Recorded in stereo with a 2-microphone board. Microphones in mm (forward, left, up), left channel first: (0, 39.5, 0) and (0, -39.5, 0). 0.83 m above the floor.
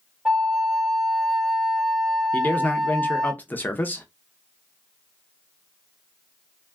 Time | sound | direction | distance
0.2 | a flute | 5° right (ahead or behind) | 0.6 m
2.3 | a man speaking | 25° left (ahead or behind) | 0.5 m